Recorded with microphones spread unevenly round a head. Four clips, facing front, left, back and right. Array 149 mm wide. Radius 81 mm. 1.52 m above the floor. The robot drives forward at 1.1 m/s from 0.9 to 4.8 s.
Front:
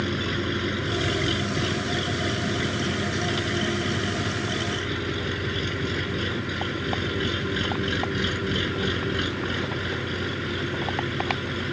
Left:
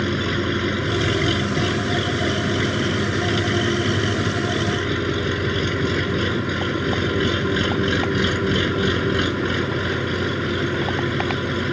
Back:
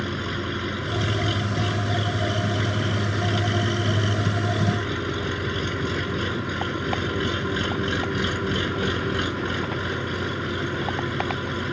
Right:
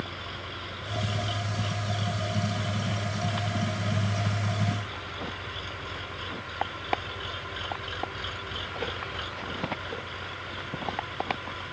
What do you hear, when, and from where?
0.0 s an engine running: 80° left; by 11.7 s 95° left